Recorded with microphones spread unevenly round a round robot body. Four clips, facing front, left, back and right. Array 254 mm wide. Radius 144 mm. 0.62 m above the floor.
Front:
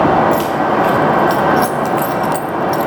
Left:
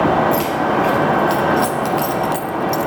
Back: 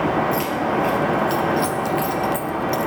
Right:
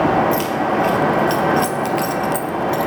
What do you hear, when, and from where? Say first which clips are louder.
0.3 s keys jangling: left 1 dB, front 7 dB; 30° right, 1.5 m; by 2.9 s 50° left, 0.5 m